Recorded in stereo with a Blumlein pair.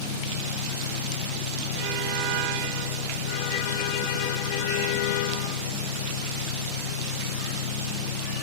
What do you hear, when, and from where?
0.0 s an engine running: 60° left